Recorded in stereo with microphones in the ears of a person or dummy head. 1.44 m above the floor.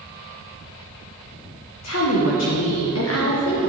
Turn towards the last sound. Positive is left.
turn(degrees=70)  # may be behind; listen again after turning